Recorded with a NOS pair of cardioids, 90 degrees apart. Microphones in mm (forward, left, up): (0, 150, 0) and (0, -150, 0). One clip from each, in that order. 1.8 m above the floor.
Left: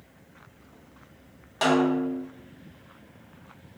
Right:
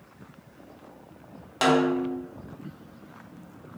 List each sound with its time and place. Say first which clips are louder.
1.6 s a snare drum: right 1 dB; 20° right, 0.8 m